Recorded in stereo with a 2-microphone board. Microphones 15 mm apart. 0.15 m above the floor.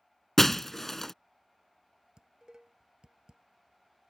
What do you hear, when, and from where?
0.4 s breaking glass: 20° left (ahead or behind)
2.2 s dishes clattering: 55° right (ahead or behind)